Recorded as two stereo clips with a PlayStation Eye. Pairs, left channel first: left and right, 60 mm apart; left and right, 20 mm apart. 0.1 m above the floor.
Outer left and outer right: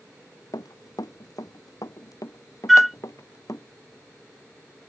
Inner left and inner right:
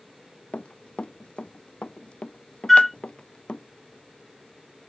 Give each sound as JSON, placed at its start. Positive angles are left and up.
{"t": 0.5, "sound": "running footsteps", "side_deg": 90}
{"t": 2.7, "sound": "a flute", "side_deg": 0}